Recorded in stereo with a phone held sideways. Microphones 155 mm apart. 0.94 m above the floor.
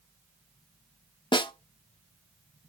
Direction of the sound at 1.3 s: 30° left (ahead or behind).